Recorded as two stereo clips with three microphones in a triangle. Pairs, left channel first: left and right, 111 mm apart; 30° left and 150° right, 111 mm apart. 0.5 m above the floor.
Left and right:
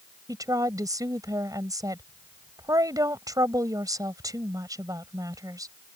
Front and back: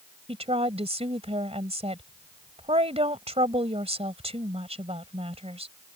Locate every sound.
0.3 s a woman speaking: 145° right